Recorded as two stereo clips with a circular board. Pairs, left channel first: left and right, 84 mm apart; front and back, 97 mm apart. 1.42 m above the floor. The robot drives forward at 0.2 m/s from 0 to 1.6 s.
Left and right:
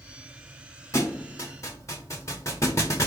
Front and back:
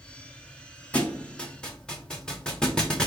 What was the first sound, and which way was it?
A thud, 65° left.